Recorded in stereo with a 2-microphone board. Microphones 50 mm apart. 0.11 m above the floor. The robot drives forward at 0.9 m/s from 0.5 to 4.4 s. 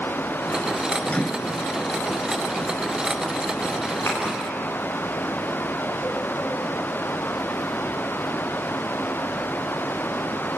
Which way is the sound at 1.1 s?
30° left (ahead or behind).